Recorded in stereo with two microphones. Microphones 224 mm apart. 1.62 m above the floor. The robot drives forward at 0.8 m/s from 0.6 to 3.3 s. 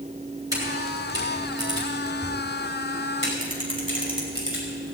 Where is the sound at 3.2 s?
60° left (ahead or behind), 5.5 m; by 5.0 s 65° left (ahead or behind), 5.5 m.